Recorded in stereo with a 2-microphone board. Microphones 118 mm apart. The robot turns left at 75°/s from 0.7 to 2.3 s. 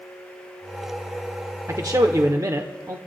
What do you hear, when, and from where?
1.7 s a man speaking: 65° right, 0.9 m; by 3.0 s 110° right, 0.9 m